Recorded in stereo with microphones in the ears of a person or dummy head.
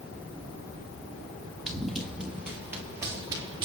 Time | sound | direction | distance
1.7 | running footsteps | 5° left (ahead or behind) | 2.5 m